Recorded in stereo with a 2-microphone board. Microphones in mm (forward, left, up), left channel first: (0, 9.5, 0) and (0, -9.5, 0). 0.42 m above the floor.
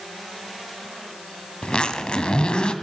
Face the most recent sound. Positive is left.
turn(degrees=60)  # may be behind; listen again after turning